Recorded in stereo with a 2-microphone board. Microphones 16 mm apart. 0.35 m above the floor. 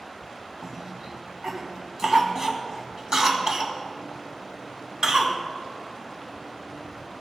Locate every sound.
0.6 s a cough: 45° right (ahead or behind), 2.5 m